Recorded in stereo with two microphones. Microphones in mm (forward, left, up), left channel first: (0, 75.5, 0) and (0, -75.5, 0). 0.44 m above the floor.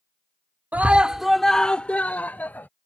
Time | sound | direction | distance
0.7 | a scream | 10° right (ahead or behind) | ?